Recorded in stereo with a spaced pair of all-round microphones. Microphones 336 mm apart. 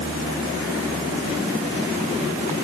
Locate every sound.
Only background noise.